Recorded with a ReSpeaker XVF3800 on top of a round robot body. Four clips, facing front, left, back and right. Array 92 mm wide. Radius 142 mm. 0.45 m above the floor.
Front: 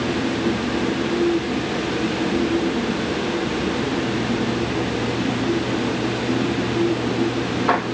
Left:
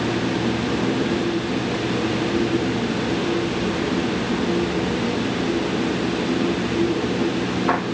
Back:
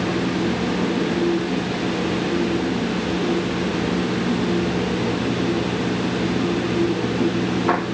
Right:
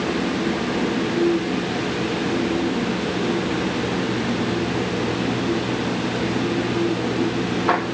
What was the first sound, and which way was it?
Only background noise.